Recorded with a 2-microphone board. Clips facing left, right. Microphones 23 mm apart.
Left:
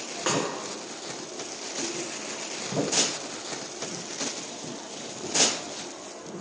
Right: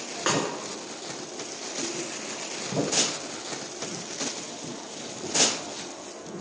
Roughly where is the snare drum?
Centre.